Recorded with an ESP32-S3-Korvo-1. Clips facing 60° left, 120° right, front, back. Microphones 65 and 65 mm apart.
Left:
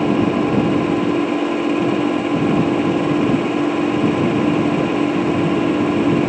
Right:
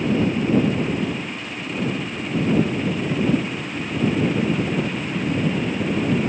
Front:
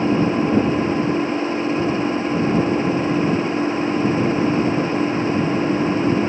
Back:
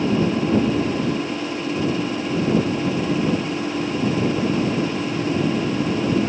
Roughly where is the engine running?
Left.